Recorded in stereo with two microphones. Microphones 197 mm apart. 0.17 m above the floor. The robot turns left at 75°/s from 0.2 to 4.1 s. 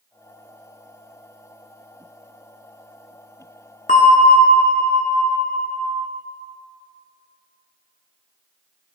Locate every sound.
3.9 s a bell: 40° left (ahead or behind), 0.8 m; by 5.9 s 50° left (ahead or behind), 0.8 m